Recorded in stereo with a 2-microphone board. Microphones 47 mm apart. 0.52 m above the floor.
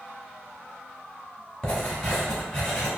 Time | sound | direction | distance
1.6 | writing | 15° left (ahead or behind) | 1.1 m